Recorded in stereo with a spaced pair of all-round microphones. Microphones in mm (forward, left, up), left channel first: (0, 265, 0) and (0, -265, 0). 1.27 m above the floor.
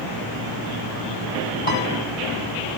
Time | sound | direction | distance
1.7 | a piano | 70° left (ahead or behind) | 3.5 m